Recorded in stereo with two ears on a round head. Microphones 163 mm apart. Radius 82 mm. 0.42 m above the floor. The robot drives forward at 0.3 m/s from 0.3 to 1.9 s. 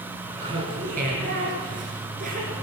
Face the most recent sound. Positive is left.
turn(degrees=-50)  # may be behind; listen again after turning